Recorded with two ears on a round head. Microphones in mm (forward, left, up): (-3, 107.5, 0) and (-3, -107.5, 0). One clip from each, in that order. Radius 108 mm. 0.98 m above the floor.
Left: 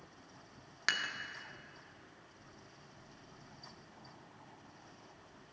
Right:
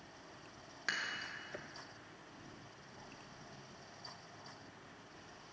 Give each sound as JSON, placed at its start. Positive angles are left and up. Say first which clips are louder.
{"t": 0.9, "sound": "dishes clattering", "louder": "left 4 dB", "side_deg": 35, "distance_m": 0.6}